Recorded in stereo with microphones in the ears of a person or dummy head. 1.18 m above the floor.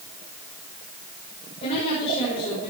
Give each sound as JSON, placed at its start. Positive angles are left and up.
{"t": 1.6, "sound": "a woman speaking", "side_deg": 35, "distance_m": 4.5}